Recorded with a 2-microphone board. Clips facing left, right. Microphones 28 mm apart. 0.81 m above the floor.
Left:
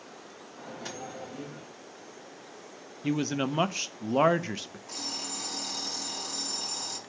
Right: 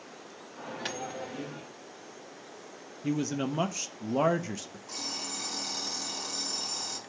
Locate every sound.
0.6 s a microwave: 60° right (ahead or behind), 0.9 m
3.0 s a man speaking: 35° left (ahead or behind), 0.6 m
4.9 s an alarm clock: 5° right (ahead or behind), 4 m